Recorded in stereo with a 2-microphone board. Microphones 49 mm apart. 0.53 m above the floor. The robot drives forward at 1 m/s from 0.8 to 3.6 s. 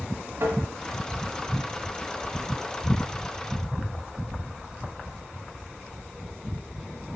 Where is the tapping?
55° right (ahead or behind), 1.9 m.